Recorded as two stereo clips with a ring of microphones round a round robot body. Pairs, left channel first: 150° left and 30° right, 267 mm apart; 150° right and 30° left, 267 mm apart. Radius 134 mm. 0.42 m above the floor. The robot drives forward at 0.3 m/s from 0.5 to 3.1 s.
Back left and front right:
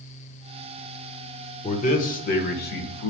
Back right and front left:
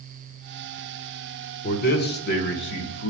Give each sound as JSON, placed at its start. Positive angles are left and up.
{"t": 1.6, "sound": "a man speaking", "azimuth_deg": -165, "distance_m": 1.0}